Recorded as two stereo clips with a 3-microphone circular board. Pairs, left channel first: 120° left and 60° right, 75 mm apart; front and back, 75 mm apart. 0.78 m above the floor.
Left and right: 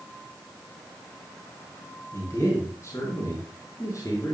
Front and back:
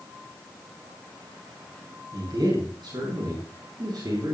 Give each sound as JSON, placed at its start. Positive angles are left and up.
{"t": 2.1, "sound": "a man speaking", "azimuth_deg": 170, "distance_m": 6.5}